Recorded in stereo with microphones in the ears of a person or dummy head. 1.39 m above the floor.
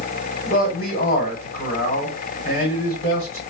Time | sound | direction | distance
0.5 | a man speaking | 30° left (ahead or behind) | 1.5 m